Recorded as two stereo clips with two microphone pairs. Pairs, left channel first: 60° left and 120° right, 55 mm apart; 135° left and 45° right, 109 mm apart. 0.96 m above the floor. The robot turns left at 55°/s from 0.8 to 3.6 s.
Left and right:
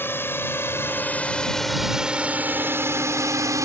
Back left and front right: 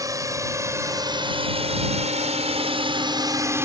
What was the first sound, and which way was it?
A drone, 15° left.